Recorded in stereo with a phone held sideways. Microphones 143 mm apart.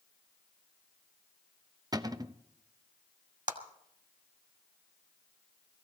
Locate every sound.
1.9 s a cupboard door: 25° right (ahead or behind), 0.7 m
3.5 s a clap: 65° right (ahead or behind), 2.0 m